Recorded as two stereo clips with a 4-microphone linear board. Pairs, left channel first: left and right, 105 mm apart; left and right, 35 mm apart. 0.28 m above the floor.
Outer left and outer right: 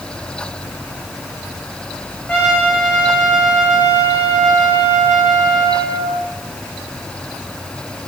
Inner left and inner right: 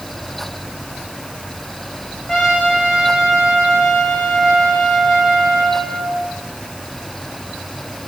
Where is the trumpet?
10° left (ahead or behind), 6.5 m.